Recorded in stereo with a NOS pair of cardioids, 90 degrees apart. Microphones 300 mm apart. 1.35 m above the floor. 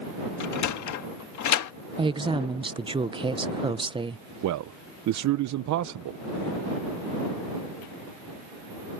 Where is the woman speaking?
15° right.